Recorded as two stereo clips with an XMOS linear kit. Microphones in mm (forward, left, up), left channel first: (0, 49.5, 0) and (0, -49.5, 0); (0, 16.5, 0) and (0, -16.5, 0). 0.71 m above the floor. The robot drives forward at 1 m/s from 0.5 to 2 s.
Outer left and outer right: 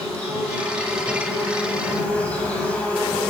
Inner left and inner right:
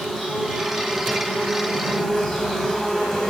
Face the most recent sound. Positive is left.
turn(degrees=10)  # may be behind; listen again after turning